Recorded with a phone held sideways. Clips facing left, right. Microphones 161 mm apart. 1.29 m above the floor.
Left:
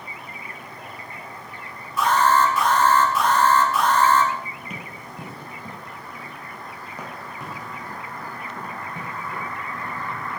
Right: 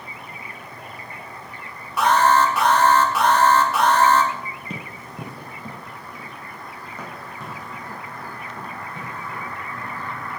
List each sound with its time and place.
2.0 s an alarm: 70° right (ahead or behind), 1.4 m
4.7 s running footsteps: 30° right (ahead or behind), 1.4 m; by 10.1 s 25° left (ahead or behind), 6 m